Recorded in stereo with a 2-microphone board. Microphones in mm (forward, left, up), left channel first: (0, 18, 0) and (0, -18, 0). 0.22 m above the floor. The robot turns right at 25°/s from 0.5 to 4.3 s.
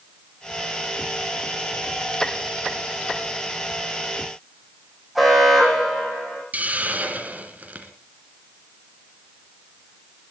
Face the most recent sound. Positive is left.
turn(degrees=-40)  # may be behind; listen again after turning